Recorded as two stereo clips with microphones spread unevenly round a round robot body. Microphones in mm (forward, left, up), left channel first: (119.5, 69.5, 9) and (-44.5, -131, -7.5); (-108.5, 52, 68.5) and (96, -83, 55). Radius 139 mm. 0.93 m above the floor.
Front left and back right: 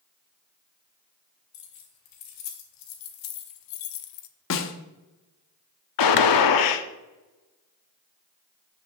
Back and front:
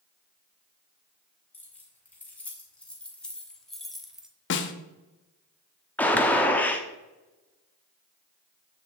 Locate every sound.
1.5 s keys jangling: 65° left, 3 m; by 4.3 s 55° left, 0.9 m
4.5 s a snare drum: 100° left, 0.9 m
6.0 s a gunshot: 65° left, 1.0 m